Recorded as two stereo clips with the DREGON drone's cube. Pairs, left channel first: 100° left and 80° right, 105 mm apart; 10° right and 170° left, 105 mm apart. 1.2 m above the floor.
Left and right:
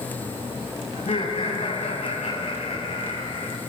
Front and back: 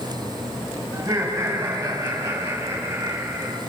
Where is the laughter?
110° left, 9.5 m; by 3.6 s 105° left, 10 m.